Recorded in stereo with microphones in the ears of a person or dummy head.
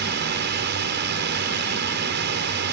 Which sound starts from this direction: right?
A drone, at 0.0 s.